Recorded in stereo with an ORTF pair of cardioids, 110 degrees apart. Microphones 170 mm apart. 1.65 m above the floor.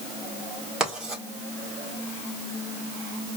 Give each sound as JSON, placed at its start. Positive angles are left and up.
{"t": 0.8, "sound": "writing", "azimuth_deg": -5, "distance_m": 1.7}